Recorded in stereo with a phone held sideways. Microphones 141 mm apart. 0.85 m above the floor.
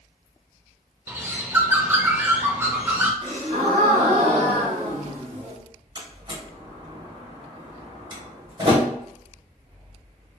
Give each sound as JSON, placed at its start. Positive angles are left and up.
{"t": 1.1, "sound": "a bird", "side_deg": -15, "distance_m": 0.5}
{"t": 3.2, "sound": "a gasp", "side_deg": -35, "distance_m": 1.3}
{"t": 6.0, "sound": "a door slam", "side_deg": -35, "distance_m": 1.1}